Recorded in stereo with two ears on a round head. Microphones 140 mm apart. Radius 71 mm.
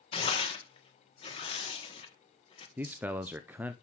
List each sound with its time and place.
0.1 s tearing paper: 35° left (ahead or behind), 1.2 m
2.8 s a man speaking: 10° right (ahead or behind), 0.5 m